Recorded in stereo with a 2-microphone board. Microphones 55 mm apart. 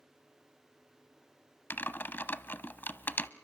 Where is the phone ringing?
I don't hear a phone ringing.